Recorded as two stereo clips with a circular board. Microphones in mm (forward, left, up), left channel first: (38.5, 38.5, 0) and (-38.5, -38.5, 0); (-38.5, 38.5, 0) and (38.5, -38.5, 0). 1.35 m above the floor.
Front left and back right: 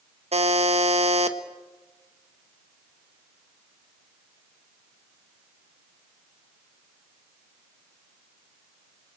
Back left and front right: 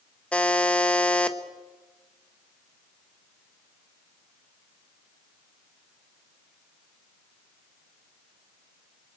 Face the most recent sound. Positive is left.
turn(degrees=-145)